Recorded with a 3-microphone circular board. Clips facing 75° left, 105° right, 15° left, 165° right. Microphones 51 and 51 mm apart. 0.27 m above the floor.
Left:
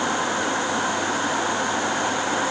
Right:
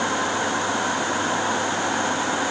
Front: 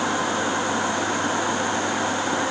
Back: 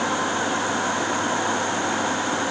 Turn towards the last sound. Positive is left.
No sound to turn to.